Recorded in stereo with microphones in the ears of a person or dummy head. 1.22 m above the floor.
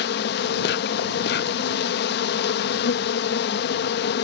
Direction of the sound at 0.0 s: 60° left (ahead or behind).